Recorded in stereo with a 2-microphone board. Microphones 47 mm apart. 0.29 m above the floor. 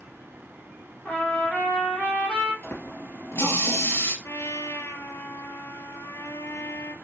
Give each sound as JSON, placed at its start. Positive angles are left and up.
{"t": 1.1, "sound": "a trumpet", "side_deg": 30, "distance_m": 4.5}
{"t": 2.6, "sound": "a running tap", "side_deg": 60, "distance_m": 3.0}
{"t": 4.2, "sound": "a trumpet", "side_deg": 75, "distance_m": 0.9}